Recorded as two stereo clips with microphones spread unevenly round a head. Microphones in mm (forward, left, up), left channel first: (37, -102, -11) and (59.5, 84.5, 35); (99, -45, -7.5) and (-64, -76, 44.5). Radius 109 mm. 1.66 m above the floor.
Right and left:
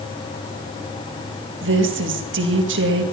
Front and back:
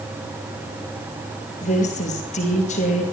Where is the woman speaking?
70° left, 2.5 m.